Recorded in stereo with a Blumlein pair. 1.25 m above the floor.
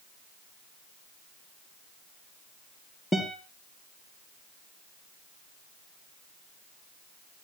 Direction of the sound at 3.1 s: 10° left.